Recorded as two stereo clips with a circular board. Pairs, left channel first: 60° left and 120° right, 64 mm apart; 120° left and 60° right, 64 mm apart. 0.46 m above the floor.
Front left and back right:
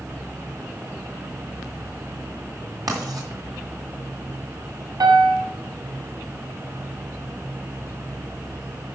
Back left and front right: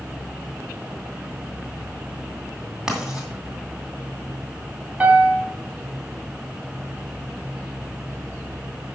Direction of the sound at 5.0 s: 130° right.